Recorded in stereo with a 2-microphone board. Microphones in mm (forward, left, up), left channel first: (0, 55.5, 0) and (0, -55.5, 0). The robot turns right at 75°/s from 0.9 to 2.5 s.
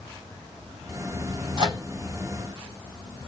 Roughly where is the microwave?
Right.